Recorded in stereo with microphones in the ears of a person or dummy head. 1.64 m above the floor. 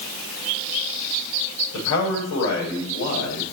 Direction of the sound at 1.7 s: 65° left (ahead or behind).